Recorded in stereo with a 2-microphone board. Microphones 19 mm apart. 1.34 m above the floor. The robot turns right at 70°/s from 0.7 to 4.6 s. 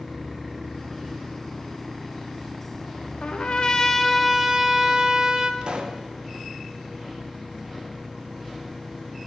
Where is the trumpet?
110° left, 0.8 m; by 5.5 s 155° right, 0.8 m.